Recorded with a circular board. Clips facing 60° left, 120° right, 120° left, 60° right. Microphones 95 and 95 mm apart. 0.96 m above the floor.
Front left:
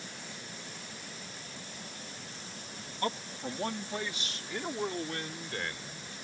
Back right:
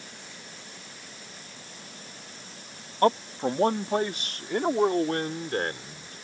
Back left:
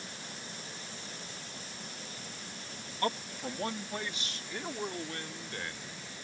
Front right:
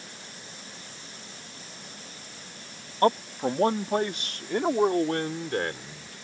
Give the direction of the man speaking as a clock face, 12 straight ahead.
3 o'clock.